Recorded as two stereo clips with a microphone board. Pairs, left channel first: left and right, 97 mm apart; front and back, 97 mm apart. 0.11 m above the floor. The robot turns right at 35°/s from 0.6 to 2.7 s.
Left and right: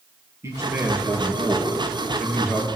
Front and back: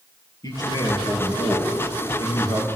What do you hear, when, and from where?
0.4 s a man speaking: 35° right, 2.5 m; by 2.6 s 35° left, 2.5 m